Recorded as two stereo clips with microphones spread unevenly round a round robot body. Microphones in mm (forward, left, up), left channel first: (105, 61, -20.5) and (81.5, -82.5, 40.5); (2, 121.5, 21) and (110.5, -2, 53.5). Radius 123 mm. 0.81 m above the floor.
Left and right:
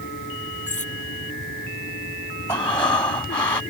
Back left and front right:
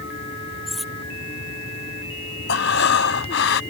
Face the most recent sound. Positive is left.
turn(degrees=165)